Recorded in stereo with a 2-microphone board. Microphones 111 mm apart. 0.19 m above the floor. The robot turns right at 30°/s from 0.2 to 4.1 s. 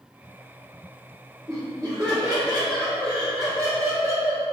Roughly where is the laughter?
Behind right.